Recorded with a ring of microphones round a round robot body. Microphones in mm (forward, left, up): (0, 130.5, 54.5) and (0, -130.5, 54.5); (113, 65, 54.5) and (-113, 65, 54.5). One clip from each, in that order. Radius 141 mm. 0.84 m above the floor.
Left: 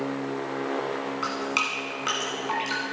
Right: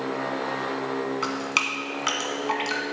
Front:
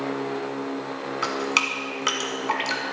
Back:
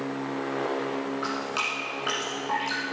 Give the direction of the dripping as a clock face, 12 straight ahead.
1 o'clock.